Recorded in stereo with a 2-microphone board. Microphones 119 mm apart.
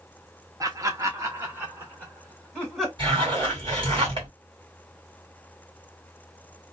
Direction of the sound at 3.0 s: 45° right (ahead or behind).